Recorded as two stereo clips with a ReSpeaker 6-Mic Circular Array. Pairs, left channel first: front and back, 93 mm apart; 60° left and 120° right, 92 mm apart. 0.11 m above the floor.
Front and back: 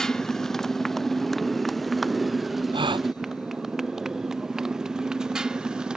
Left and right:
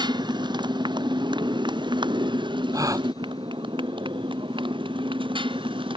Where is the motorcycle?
85° right; by 6.0 s 100° right.